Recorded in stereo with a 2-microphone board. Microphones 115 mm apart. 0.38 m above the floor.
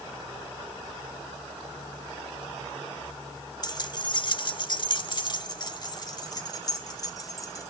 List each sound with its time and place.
3.6 s keys jangling: 35° left (ahead or behind), 0.9 m; by 7.7 s 30° left (ahead or behind), 2 m